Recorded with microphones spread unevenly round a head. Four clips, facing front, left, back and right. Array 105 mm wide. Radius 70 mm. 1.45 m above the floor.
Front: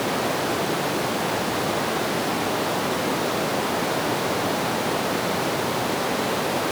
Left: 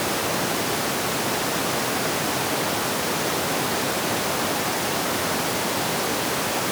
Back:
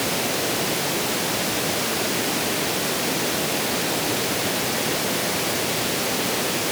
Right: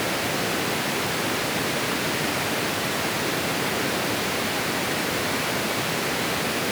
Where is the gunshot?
I don't hear a gunshot.